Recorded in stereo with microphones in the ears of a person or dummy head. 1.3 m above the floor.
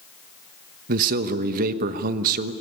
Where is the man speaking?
55° right (ahead or behind), 1.1 m.